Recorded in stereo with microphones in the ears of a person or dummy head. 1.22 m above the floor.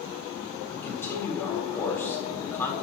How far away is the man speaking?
About 4.5 m.